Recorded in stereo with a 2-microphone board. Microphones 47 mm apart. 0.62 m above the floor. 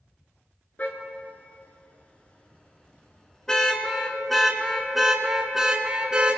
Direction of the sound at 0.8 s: 35° left (ahead or behind).